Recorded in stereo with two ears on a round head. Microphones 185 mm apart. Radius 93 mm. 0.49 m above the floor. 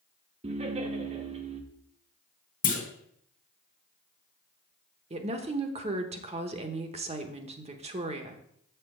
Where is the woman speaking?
30° right (ahead or behind), 1.0 m.